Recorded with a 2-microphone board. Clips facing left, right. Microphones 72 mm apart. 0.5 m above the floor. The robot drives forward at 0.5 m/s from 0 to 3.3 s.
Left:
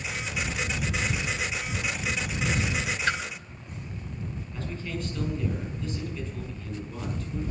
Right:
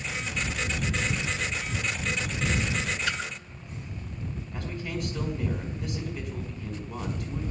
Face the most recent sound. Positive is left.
turn(degrees=-75)  # may be behind; listen again after turning